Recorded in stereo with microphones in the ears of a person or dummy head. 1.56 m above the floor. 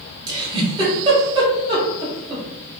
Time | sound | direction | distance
0.3 | a giggle | 25° right (ahead or behind) | 1.0 m